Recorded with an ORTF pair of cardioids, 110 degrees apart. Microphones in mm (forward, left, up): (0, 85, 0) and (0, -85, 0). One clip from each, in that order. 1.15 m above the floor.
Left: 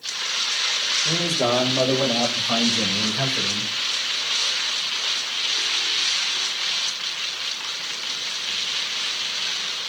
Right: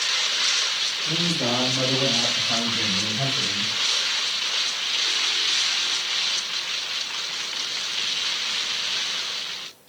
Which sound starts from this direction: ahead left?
A man speaking, at 1.1 s.